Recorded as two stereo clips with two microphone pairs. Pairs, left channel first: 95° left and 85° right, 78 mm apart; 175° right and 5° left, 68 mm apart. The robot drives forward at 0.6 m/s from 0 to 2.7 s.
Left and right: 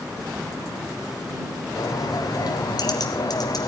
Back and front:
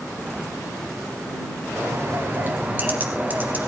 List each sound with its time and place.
1.8 s a bird: 55° left, 2.5 m; by 3.7 s 65° left, 2.5 m